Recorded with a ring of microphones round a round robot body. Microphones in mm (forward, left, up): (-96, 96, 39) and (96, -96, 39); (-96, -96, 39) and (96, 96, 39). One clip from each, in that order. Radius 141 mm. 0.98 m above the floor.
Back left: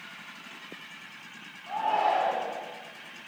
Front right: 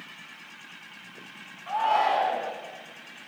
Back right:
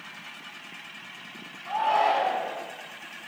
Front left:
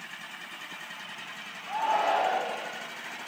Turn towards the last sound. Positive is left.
turn(degrees=-60)